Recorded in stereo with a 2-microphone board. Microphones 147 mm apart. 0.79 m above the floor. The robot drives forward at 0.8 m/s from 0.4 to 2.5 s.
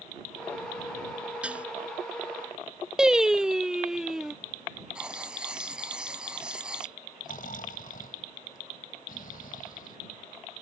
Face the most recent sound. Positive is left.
turn(degrees=70)  # may be behind; listen again after turning